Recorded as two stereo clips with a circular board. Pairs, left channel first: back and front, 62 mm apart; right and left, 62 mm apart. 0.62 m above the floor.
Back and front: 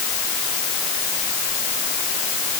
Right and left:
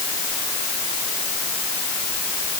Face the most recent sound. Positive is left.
No sound to turn to.